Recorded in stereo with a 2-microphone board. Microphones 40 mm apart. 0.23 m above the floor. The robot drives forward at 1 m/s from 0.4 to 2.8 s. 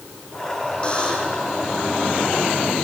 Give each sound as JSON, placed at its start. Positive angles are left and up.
{"t": 0.8, "sound": "a buzzer", "side_deg": 30, "distance_m": 5.5}